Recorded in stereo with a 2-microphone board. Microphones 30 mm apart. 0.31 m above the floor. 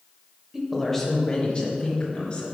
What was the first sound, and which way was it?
A woman speaking, 15° right (ahead or behind).